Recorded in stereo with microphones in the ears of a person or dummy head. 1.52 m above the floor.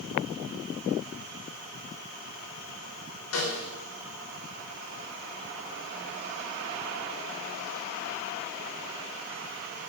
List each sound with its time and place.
3.3 s a snare drum: 85° left, 5 m